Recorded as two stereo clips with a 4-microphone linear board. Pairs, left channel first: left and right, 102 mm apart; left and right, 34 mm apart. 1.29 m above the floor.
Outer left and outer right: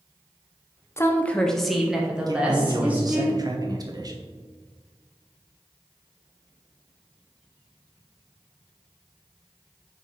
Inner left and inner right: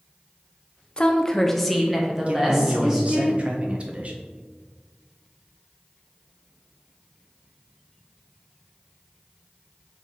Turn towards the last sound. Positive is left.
turn(degrees=-40)  # may be behind; listen again after turning